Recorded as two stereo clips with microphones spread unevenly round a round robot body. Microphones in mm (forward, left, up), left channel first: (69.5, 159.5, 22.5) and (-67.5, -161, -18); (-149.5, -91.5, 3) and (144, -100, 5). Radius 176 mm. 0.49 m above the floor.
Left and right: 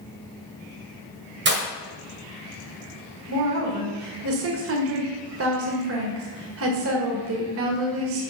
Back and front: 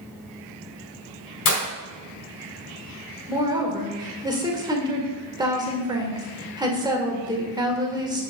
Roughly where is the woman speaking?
Right.